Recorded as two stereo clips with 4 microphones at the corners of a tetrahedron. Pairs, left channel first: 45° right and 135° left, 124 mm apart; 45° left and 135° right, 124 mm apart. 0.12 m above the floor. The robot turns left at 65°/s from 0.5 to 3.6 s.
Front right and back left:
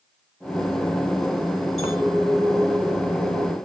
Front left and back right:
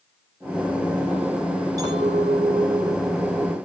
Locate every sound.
1.8 s a clink: 75° right, 4.5 m; by 3.5 s 170° left, 4.5 m